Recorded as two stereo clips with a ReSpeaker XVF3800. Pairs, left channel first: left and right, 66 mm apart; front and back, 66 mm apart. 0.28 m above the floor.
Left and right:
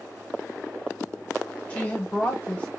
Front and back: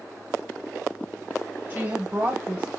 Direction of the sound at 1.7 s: 145° left.